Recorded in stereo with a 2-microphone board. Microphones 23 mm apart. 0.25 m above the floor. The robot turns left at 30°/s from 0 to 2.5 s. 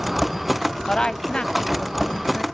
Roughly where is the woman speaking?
Behind left.